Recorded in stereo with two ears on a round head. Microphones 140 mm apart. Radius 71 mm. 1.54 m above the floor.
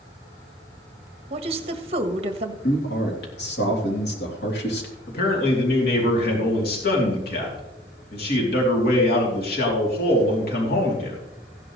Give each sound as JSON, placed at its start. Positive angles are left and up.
{"t": 1.3, "sound": "a woman speaking", "side_deg": -35, "distance_m": 1.4}
{"t": 2.6, "sound": "a man speaking", "side_deg": 80, "distance_m": 3.5}
{"t": 5.1, "sound": "a man speaking", "side_deg": 70, "distance_m": 3.0}